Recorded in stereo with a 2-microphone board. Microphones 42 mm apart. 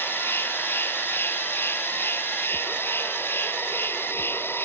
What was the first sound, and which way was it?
An insect, 65° left (ahead or behind).